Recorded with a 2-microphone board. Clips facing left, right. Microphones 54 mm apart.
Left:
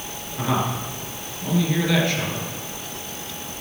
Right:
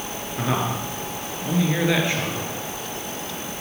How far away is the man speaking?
About 4 m.